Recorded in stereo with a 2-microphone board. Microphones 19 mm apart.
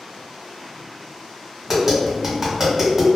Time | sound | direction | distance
1.7 | tapping | 25° right (ahead or behind) | 1.7 m